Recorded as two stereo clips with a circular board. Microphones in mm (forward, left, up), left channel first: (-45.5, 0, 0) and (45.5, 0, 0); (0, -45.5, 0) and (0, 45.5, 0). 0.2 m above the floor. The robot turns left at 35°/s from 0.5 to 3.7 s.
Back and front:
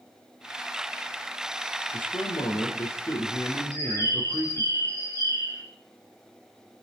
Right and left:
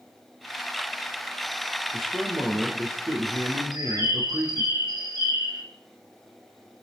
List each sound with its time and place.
1.9 s a man speaking: straight behind, 4 m; by 4.7 s 115° left, 4 m
3.7 s a bird: 50° left, 8.5 m